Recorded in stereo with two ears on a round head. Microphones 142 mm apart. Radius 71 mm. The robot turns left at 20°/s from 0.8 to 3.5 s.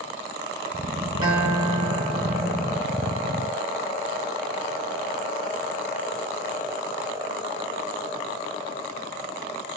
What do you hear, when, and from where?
1.2 s a guitar: 20° right, 1.1 m; by 2.8 s 55° right, 1.1 m